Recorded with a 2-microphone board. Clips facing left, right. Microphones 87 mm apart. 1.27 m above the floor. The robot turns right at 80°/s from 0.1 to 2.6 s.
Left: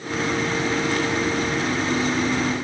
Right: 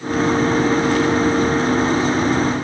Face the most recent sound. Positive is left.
No sound to turn to.